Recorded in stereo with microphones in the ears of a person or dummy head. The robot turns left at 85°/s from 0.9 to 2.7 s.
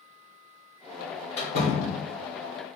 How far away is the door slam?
About 1.1 m.